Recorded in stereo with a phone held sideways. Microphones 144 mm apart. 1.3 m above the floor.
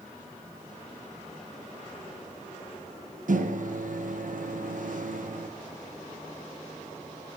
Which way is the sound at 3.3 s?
65° right (ahead or behind).